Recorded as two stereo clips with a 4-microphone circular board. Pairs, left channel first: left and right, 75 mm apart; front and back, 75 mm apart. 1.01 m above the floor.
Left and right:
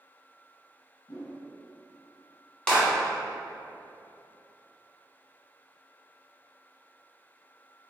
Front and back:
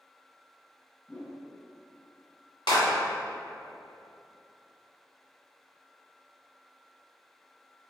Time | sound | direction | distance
1.1 | a whoosh | 80° left | 1.6 m
2.7 | a clap | 10° left | 1.4 m